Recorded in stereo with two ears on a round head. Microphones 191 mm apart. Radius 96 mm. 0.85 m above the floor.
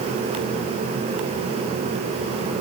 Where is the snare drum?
I don't hear a snare drum.